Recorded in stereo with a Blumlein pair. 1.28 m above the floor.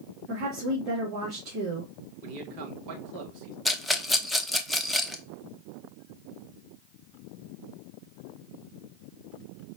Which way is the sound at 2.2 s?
40° right.